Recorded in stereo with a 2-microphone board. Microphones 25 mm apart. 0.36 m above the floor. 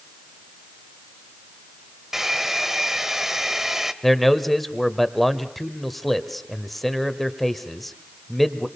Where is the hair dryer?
15° right (ahead or behind), 1.2 m.